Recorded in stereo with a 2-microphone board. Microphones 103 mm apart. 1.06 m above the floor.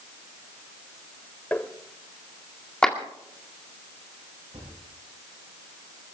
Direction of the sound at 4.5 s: 65° right (ahead or behind).